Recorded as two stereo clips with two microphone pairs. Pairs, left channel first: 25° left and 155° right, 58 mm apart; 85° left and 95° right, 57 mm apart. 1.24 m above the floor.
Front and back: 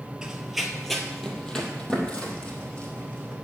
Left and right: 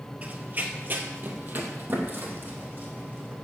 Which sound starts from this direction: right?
Running footsteps, at 0.2 s.